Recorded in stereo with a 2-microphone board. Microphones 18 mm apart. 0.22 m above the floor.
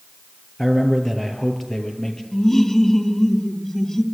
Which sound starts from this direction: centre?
A man speaking, at 0.6 s.